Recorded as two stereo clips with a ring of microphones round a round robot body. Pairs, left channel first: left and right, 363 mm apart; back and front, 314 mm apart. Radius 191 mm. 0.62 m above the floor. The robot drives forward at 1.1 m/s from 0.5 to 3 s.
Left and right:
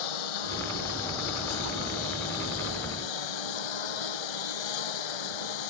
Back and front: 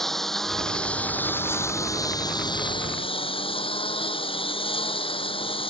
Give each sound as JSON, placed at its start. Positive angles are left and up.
{"t": 0.0, "sound": "a lawn mower", "azimuth_deg": 90}